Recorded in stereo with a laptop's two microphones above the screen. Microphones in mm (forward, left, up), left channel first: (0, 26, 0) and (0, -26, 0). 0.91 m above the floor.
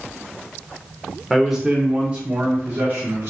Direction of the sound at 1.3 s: Centre (ahead or behind).